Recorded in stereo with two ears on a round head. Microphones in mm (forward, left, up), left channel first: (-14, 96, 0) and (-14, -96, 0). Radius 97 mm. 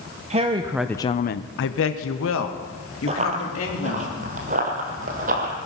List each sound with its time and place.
0.3 s a woman speaking: 30° right (ahead or behind), 1.0 m; by 4.1 s 65° left (ahead or behind), 4 m
3.1 s running footsteps: 30° right (ahead or behind), 1.9 m; by 5.5 s 40° right (ahead or behind), 3 m